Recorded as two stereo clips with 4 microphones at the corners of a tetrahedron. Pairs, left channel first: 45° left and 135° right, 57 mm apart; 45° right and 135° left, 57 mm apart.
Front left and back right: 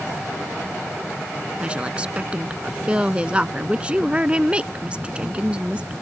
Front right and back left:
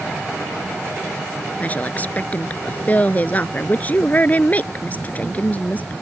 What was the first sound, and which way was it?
A woman speaking, 80° right.